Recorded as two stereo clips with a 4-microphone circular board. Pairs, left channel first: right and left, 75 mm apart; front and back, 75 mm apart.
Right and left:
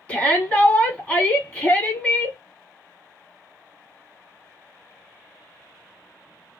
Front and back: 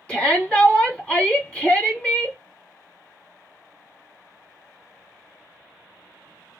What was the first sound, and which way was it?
A shout, 45° right.